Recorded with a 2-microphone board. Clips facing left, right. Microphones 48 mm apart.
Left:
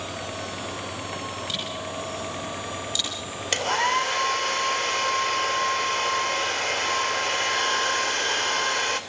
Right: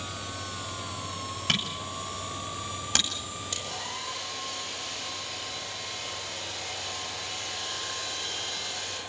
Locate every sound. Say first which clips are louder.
1.5 s a camera shutter: even; 70° right (ahead or behind), 9 m
3.5 s a hair dryer: left 17 dB; 75° left (ahead or behind), 2.5 m